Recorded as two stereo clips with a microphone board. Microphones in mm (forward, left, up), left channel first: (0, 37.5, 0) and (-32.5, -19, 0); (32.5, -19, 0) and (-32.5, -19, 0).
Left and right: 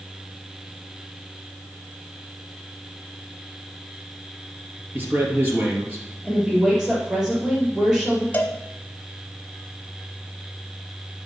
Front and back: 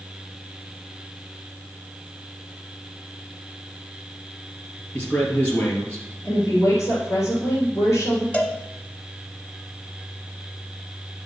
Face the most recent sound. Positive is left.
turn(degrees=40)